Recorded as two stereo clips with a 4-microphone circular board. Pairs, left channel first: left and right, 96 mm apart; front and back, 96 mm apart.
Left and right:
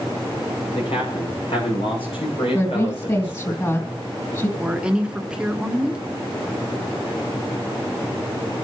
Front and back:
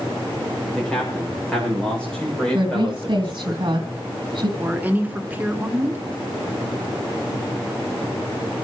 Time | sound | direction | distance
0.8 | a man speaking | 85° left | 8.5 m
2.5 | a woman speaking | 145° left | 3.5 m
4.6 | a woman speaking | 150° right | 1.5 m